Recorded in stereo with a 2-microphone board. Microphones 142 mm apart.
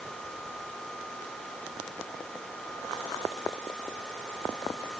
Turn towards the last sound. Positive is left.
No sound to turn to.